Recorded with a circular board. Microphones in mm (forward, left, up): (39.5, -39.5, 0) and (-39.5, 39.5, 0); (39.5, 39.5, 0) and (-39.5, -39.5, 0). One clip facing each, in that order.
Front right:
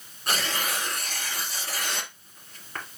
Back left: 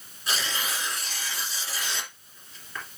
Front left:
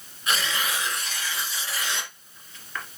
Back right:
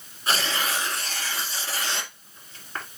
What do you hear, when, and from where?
0.3 s tearing paper: 80° right, 2.0 m